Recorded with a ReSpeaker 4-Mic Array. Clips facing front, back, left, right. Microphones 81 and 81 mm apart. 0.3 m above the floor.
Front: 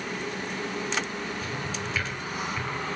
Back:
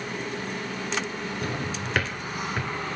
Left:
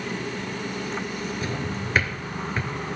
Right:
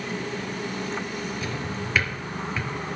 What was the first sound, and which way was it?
A drawer, 145° left.